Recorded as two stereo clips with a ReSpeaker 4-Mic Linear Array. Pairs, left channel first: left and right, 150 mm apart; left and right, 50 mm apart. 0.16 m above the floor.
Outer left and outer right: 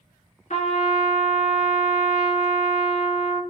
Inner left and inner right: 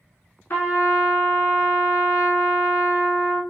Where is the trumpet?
55° left (ahead or behind), 1.1 m.